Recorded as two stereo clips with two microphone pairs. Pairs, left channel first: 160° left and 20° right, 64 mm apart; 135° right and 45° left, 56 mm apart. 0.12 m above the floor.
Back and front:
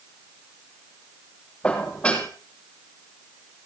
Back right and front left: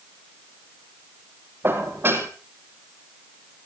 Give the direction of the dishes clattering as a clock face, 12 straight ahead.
9 o'clock.